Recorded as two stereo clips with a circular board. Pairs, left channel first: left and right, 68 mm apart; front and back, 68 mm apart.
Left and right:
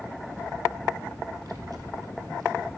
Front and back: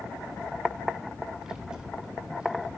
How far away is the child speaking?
About 1.3 m.